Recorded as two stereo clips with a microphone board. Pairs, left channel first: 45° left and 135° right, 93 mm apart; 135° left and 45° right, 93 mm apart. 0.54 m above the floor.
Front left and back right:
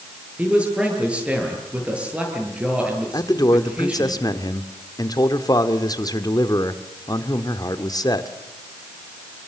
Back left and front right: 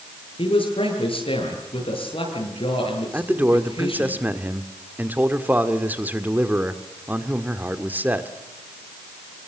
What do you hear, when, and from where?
0.4 s a man speaking: 150° left, 9.5 m
3.1 s a man speaking: 20° left, 1.7 m